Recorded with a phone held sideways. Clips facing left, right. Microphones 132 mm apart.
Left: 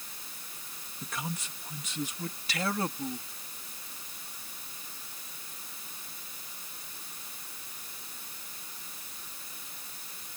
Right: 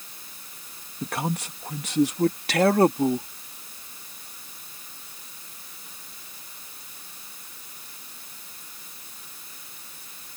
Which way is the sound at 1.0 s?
70° right (ahead or behind).